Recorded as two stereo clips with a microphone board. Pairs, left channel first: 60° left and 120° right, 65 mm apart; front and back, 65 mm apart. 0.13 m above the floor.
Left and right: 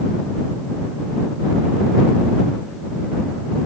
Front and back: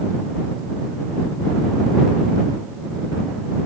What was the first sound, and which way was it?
Only background noise.